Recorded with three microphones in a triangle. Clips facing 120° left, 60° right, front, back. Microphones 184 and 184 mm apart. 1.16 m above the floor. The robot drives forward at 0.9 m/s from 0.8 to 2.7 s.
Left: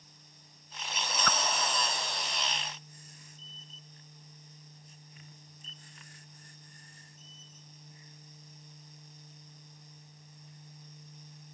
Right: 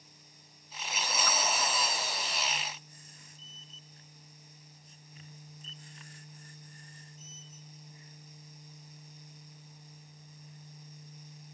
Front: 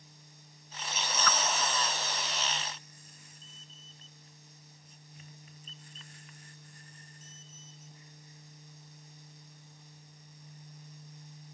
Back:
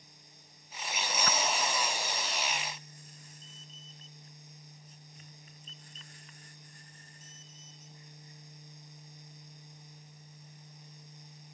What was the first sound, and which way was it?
A whoosh, 120° left.